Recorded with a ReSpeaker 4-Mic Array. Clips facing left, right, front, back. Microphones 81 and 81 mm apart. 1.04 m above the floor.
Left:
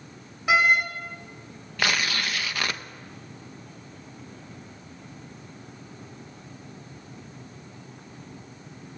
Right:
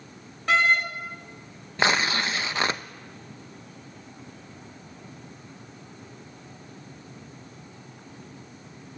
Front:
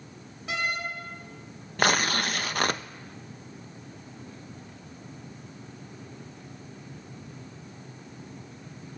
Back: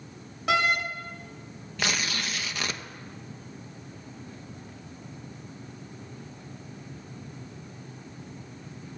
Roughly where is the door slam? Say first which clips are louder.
Left 1 dB, back 7 dB; behind.